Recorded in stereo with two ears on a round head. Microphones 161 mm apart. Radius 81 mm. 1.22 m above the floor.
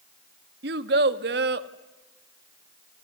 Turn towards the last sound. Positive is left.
turn(degrees=-65)  # may be behind; listen again after turning